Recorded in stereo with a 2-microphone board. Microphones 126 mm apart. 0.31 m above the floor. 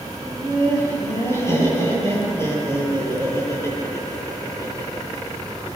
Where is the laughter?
20° left (ahead or behind), 9.5 m.